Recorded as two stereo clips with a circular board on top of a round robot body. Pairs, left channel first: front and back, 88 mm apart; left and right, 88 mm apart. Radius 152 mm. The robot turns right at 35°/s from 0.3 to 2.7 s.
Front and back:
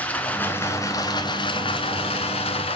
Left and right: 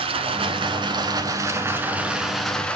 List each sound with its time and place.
0.0 s running water: 75° right, 1.0 m; by 2.8 s 10° left, 1.0 m